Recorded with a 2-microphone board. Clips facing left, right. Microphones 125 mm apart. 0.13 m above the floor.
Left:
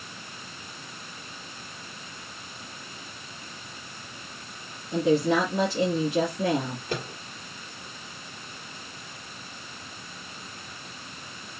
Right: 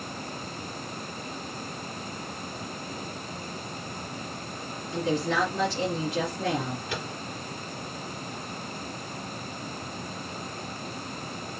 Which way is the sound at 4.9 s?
25° left (ahead or behind).